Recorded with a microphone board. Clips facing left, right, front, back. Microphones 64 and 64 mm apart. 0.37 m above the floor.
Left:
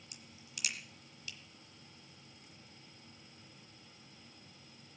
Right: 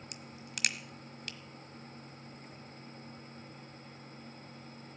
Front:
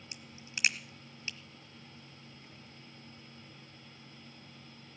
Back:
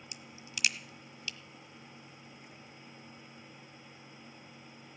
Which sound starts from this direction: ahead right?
A crack, at 0.1 s.